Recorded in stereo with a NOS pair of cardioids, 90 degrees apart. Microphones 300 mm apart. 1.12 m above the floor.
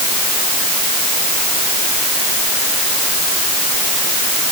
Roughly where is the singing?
No singing in this recording.